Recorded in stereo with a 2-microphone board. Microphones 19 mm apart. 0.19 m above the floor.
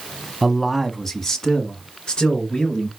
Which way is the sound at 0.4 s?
Centre (ahead or behind).